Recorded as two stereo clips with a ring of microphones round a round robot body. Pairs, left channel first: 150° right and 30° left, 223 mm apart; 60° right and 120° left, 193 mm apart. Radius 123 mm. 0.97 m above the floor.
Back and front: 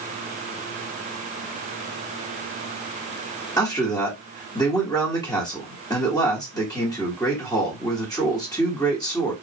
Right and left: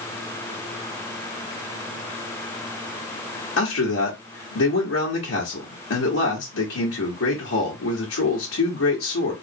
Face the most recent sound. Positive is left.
turn(degrees=-75)